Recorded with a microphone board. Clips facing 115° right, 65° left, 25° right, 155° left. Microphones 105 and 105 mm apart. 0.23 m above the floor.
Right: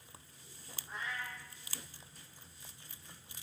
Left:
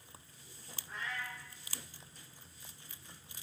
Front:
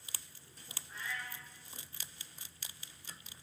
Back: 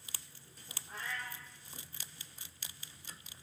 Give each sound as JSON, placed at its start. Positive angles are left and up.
{"t": 0.9, "sound": "a cat meowing", "azimuth_deg": 175, "distance_m": 6.0}